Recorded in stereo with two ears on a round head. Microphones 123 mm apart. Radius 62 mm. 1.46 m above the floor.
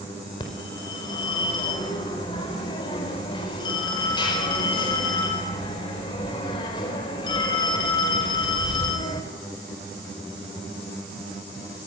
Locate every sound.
0.4 s a phone ringing: 35° left (ahead or behind), 4.5 m